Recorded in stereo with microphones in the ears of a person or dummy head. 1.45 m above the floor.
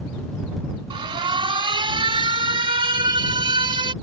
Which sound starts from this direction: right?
An alarm, at 0.9 s.